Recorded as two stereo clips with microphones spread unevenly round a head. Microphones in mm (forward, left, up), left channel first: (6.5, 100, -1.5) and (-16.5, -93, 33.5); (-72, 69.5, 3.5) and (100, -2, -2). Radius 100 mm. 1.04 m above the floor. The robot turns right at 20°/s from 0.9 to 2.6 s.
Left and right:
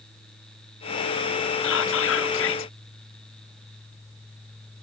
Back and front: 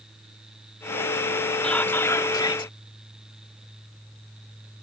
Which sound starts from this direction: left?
Whispering, at 1.6 s.